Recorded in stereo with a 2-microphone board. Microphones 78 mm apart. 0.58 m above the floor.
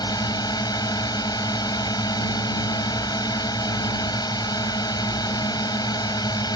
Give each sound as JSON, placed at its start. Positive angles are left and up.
{"t": 0.0, "sound": "a drone", "side_deg": 70}